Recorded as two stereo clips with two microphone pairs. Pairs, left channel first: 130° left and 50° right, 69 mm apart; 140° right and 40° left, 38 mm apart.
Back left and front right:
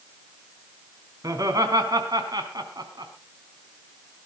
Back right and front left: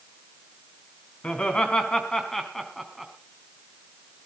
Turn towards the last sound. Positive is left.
turn(degrees=-45)